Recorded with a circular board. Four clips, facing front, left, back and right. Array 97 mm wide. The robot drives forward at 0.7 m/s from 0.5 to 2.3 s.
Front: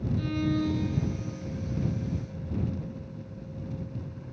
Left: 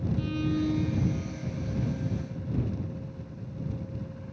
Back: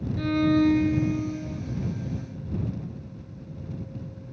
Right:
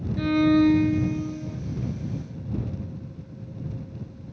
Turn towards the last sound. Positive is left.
turn(degrees=-160)